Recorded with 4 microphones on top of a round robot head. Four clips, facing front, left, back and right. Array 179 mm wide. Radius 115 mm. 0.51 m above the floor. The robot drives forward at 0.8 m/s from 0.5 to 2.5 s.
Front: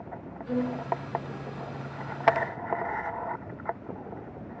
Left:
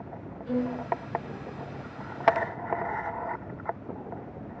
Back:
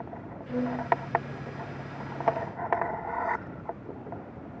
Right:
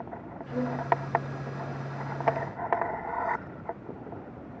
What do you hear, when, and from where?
0.5 s a violin: 50° left, 7.5 m